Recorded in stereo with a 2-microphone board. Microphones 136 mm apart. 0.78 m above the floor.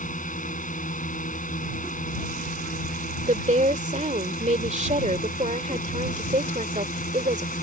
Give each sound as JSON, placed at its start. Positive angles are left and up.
{"t": 0.0, "sound": "a drone", "side_deg": 75}
{"t": 3.3, "sound": "a woman speaking", "side_deg": -60}